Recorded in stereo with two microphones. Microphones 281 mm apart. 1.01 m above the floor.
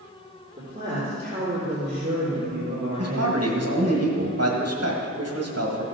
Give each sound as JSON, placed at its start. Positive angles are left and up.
{"t": 0.6, "sound": "a woman speaking", "side_deg": -25, "distance_m": 3.0}
{"t": 3.0, "sound": "a man speaking", "side_deg": -60, "distance_m": 1.6}